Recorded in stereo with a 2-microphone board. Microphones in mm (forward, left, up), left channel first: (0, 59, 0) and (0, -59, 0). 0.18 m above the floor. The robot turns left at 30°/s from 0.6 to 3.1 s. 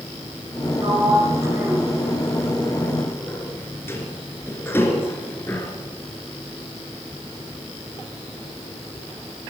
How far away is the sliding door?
About 2.5 m.